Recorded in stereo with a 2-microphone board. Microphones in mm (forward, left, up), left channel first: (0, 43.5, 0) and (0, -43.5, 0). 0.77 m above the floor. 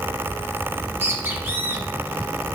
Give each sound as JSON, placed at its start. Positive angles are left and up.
{"t": 0.7, "sound": "a bird", "side_deg": -25, "distance_m": 2.5}